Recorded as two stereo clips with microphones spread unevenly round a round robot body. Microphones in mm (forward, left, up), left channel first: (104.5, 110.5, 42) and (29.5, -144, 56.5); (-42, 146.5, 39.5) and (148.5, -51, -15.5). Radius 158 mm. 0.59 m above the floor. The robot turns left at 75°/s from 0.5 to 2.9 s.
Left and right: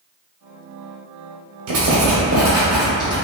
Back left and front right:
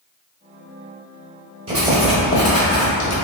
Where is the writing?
120° right, 1.1 m; by 3.1 s 150° left, 1.1 m.